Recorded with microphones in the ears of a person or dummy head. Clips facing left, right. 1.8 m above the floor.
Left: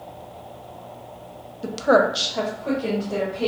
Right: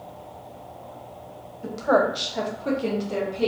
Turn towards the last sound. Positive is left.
turn(degrees=-50)  # may be behind; listen again after turning